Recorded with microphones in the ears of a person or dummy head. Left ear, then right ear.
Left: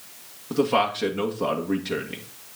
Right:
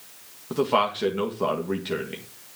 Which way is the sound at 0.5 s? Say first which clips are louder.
Left 1 dB; 15° right (ahead or behind).